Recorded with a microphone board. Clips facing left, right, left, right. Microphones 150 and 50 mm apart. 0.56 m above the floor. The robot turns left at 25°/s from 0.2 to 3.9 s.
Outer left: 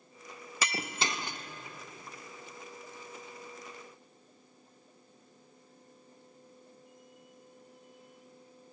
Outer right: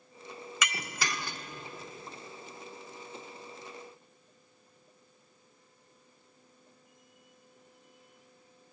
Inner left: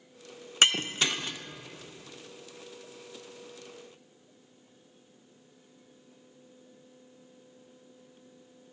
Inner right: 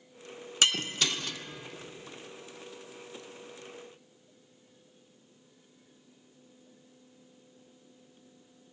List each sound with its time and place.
0.6 s breaking glass: 35° left (ahead or behind), 0.5 m; by 1.4 s 15° left (ahead or behind), 0.5 m